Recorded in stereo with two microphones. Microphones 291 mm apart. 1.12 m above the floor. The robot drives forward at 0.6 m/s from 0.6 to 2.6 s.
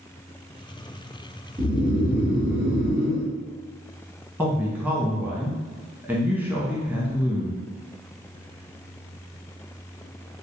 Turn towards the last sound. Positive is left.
turn(degrees=-5)  # may be behind; listen again after turning